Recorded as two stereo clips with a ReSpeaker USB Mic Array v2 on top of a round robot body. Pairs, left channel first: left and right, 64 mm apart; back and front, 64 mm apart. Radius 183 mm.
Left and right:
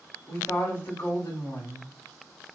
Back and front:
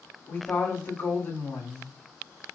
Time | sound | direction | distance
0.3 | a woman speaking | 135° left | 1.9 m